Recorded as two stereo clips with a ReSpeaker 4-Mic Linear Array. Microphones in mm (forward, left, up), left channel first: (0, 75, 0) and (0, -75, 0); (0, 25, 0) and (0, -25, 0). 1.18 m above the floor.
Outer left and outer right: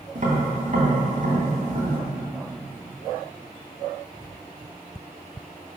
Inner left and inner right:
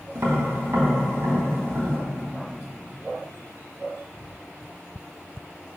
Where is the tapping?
65° right (ahead or behind), 2 m.